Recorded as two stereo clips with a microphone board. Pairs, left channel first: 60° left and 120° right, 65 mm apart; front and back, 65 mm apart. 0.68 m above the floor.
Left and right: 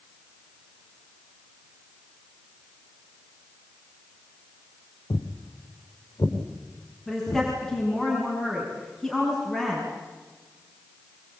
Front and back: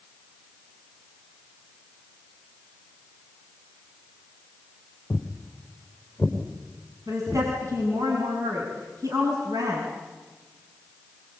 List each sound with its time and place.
5.1 s footsteps: 60° left, 4 m; by 7.5 s 110° left, 4.5 m
7.1 s a woman speaking: 150° left, 6.5 m